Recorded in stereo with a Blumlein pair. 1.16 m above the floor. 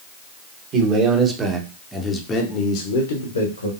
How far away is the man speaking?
About 1.3 m.